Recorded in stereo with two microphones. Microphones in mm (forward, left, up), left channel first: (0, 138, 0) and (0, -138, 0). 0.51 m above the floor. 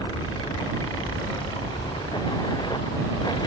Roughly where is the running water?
Centre.